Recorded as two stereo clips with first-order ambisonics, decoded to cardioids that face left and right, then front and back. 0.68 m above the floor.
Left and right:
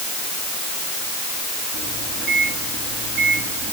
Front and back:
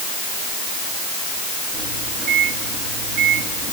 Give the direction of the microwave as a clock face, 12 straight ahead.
5 o'clock.